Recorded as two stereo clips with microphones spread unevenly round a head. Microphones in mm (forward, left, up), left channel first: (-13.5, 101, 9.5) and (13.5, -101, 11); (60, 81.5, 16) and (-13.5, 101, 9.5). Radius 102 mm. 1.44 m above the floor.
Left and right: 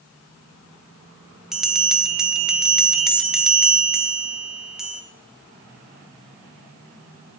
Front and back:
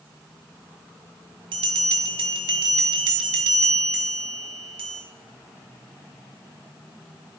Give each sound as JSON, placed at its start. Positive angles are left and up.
{"t": 1.5, "sound": "a bell", "azimuth_deg": -170, "distance_m": 0.9}